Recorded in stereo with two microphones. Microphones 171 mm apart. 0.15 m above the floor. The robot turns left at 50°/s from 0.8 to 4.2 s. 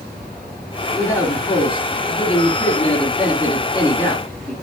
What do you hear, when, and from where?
0.9 s a man speaking: 170° left, 2 m; by 4.5 s 10° left, 2 m